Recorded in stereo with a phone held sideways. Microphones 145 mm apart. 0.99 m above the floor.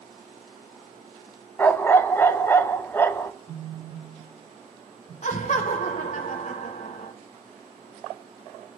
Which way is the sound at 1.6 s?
15° left (ahead or behind).